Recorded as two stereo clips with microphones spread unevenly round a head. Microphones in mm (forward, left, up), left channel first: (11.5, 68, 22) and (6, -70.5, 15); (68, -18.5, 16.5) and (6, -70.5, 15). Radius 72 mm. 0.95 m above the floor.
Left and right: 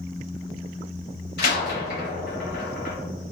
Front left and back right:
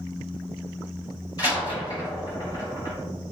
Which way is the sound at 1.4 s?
105° left.